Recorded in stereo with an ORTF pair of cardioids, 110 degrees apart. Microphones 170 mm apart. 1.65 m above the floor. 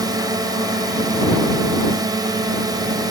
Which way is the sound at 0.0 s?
20° right.